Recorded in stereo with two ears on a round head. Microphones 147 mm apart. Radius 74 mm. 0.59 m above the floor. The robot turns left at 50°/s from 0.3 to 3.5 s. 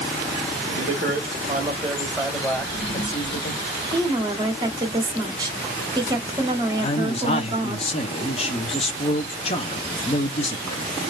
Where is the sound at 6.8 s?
35° left (ahead or behind), 0.6 m.